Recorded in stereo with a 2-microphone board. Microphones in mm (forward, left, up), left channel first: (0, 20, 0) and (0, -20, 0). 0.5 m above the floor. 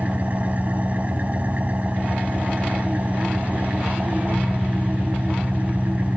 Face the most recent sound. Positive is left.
turn(degrees=-40)  # may be behind; listen again after turning